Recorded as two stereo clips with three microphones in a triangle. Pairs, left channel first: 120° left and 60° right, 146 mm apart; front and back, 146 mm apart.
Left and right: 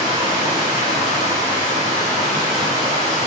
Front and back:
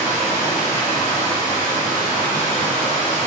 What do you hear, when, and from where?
0.0 s running water: 50° right, 1.1 m